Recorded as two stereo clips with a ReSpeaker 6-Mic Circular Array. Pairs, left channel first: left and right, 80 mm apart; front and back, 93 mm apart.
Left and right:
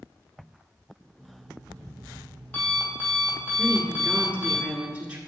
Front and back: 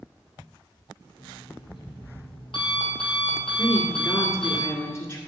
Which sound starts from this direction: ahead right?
A woman speaking, at 3.6 s.